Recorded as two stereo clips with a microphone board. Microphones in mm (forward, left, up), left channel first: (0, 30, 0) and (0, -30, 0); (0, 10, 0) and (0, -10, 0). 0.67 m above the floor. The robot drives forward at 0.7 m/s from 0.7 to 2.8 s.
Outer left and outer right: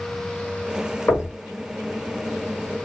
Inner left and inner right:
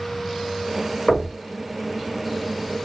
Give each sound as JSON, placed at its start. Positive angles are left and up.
{"t": 1.1, "sound": "knocking", "side_deg": 45, "distance_m": 2.0}